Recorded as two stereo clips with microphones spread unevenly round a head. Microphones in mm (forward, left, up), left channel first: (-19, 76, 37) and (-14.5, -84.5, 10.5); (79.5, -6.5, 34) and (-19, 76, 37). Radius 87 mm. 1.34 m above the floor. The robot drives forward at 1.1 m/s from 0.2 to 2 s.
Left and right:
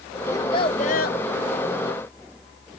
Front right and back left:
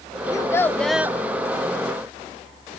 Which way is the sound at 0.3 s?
25° left.